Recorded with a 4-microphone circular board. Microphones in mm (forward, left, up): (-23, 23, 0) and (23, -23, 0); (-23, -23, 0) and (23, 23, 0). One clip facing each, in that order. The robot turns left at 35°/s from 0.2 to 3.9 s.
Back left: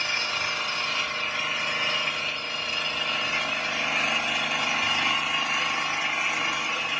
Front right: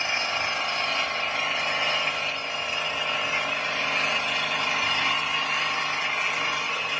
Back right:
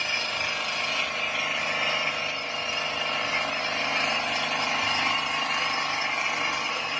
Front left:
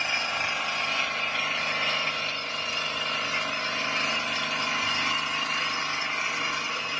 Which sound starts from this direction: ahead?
An engine running, at 0.0 s.